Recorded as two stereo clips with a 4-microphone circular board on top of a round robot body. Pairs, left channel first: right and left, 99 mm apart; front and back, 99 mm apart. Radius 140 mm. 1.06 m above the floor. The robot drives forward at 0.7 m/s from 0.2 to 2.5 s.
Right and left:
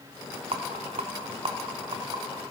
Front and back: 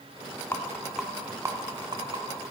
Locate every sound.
0.5 s a rattle: 70° left, 0.8 m; by 2.2 s 140° left, 1.2 m